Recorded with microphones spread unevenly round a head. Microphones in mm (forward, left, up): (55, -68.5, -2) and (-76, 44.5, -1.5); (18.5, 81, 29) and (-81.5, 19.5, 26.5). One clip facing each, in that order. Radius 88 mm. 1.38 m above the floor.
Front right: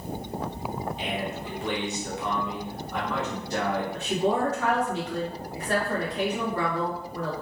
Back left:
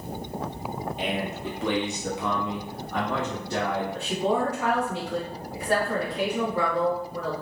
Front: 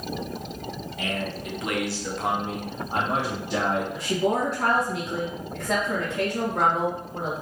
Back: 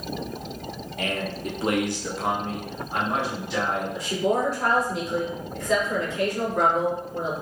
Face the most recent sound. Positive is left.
turn(degrees=60)